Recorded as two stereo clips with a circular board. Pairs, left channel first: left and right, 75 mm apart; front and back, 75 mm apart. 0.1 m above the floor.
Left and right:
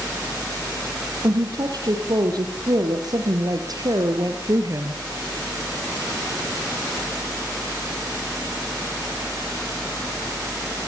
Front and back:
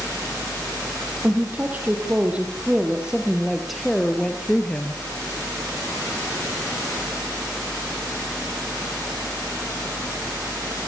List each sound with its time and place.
1.2 s a woman speaking: 115° right, 3.5 m; by 5.0 s 65° right, 2.5 m